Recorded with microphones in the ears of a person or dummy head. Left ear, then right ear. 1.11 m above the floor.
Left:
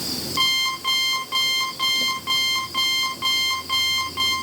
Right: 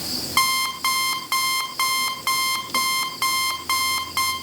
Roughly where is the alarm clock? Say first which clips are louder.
Even; right.